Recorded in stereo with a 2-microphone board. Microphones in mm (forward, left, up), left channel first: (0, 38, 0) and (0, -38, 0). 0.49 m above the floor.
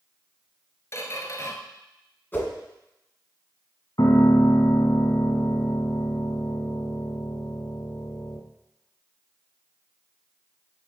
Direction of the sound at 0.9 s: 40° left (ahead or behind).